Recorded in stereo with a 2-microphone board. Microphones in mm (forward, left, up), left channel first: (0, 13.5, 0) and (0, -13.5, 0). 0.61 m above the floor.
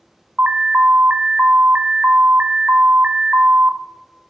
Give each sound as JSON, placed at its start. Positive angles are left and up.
{"t": 0.4, "sound": "an alarm", "side_deg": -50, "distance_m": 0.5}